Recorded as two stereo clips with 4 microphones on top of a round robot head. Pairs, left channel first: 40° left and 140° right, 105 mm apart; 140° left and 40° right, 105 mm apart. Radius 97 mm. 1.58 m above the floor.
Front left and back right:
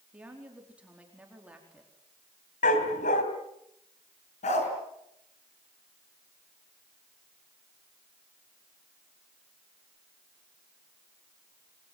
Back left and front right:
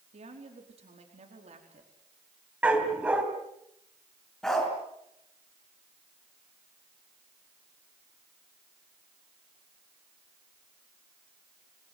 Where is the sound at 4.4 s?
55° left, 5 m.